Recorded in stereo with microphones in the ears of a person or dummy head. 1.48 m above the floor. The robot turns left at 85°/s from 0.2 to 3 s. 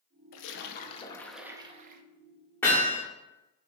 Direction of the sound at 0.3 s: 85° left.